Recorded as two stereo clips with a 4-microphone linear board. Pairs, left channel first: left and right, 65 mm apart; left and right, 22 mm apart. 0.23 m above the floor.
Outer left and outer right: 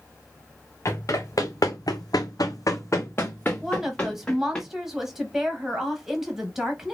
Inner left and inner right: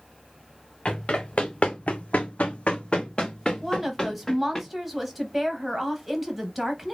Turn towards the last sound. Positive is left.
turn(degrees=-5)  # may be behind; listen again after turning